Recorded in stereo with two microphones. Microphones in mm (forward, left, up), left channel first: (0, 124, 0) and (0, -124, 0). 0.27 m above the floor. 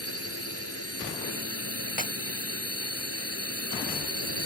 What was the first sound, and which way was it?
A drone, 70° left (ahead or behind).